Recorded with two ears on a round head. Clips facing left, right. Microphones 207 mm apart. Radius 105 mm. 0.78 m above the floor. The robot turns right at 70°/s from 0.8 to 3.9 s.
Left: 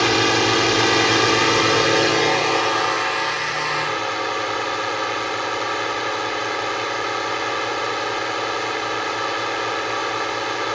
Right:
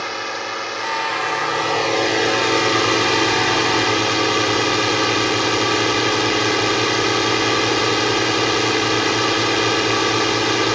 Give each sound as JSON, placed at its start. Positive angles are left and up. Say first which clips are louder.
{"t": 0.0, "sound": "a drone", "louder": "left 10 dB", "azimuth_deg": 85}